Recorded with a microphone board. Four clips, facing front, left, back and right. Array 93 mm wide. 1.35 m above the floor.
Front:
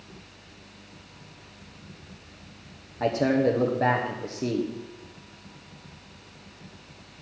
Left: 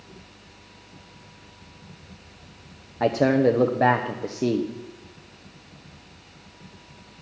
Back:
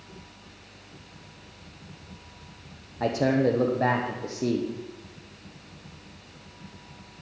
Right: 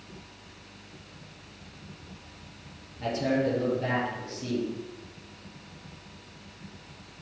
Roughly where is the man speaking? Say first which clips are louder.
Left 8 dB, even; left.